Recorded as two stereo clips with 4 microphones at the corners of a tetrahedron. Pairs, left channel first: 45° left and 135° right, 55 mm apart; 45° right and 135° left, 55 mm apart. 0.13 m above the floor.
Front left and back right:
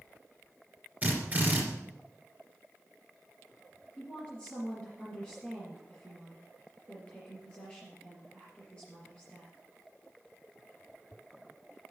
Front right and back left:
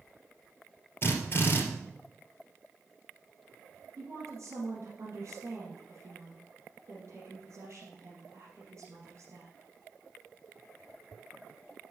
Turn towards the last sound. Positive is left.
turn(degrees=115)